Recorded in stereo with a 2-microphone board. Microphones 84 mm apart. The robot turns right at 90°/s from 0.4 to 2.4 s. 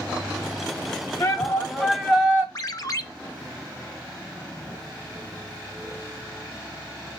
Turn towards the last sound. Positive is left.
turn(degrees=45)  # may be behind; listen again after turning